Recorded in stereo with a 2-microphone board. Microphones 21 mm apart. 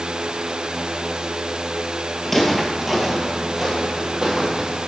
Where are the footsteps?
10° left (ahead or behind), 1.7 m; by 4.9 s 50° right (ahead or behind), 3 m.